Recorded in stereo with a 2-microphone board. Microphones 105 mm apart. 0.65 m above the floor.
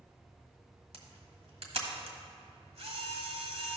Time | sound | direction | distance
0.9 | a camera shutter | 75° right (ahead or behind) | 1.5 m